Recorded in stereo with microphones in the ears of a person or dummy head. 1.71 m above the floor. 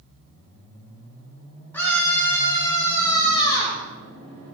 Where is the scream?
10° left (ahead or behind), 6 m; by 3.8 s 20° left (ahead or behind), 8 m.